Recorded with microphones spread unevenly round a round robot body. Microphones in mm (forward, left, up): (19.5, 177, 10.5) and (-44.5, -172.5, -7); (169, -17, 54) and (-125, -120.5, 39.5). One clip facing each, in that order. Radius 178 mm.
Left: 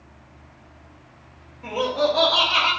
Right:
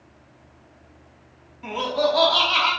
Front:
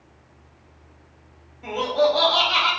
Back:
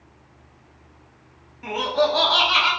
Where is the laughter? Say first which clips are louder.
Left 1 dB, front 2 dB; 145° right, 0.9 m.